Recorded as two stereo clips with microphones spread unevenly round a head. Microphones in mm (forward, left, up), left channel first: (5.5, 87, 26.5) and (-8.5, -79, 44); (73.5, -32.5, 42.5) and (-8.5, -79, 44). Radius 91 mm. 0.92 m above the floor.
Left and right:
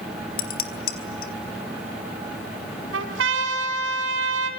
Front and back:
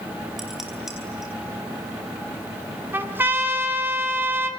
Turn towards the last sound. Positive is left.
turn(degrees=-85)